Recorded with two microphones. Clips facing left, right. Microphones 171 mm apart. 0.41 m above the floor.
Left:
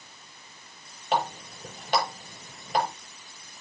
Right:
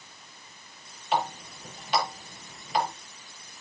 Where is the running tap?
45° left (ahead or behind), 6 m.